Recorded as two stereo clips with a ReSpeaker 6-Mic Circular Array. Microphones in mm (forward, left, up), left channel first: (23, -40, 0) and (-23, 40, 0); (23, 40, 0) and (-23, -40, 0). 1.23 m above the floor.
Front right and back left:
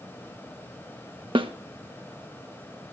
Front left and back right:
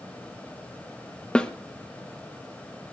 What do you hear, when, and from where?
1.4 s a snare drum: 140° left, 1.3 m